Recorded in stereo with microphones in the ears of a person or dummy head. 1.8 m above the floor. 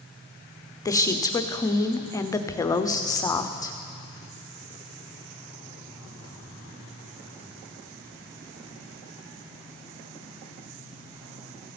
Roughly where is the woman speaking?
Centre.